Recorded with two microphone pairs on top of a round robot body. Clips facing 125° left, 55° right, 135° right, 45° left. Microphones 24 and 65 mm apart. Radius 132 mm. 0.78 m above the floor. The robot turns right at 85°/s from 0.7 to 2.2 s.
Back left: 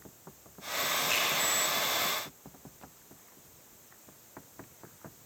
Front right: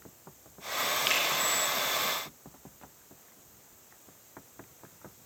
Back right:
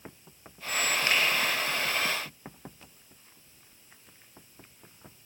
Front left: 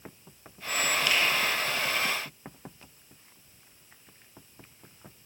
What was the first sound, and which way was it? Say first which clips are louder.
A finger snap: front right 3 dB, back right 1 dB; 85° right.